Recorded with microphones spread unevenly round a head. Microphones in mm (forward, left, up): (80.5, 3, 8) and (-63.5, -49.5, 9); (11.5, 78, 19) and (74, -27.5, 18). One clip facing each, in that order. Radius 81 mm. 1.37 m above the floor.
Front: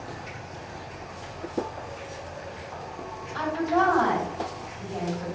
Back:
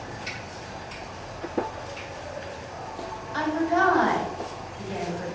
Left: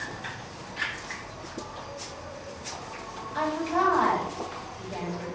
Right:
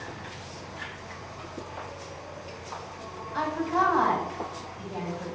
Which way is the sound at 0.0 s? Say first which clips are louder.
Back 1 dB, left 2 dB; 150° left.